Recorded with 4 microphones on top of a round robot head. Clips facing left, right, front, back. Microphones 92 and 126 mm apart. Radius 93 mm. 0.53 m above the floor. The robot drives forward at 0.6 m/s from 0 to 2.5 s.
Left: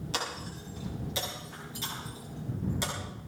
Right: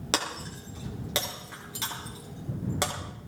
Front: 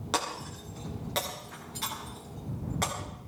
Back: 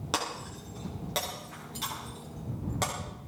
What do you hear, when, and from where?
0.1 s breaking glass: 95° right, 4.5 m; by 2.9 s 110° right, 5 m